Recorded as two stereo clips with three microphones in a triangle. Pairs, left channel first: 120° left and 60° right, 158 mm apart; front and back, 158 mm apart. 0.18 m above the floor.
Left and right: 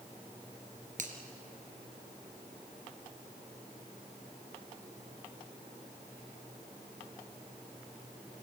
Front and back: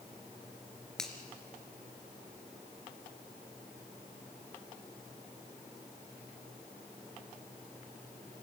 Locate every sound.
1.0 s a finger snap: 85° right, 2.5 m